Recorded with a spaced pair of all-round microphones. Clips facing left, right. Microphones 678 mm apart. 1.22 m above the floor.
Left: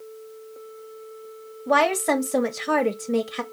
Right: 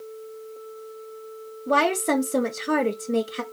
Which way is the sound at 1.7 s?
25° left (ahead or behind).